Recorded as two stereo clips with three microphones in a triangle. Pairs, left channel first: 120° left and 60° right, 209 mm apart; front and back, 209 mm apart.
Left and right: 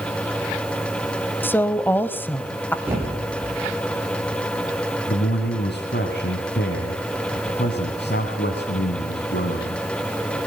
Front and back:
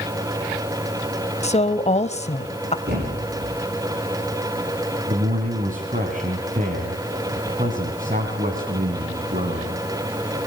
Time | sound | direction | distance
1.4 | a woman speaking | 45° left | 1.2 m
2.9 | a thud | 140° right | 8 m
5.1 | a man speaking | 135° left | 3 m